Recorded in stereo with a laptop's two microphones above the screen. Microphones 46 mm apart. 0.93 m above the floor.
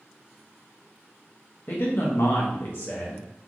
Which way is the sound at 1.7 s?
50° left (ahead or behind).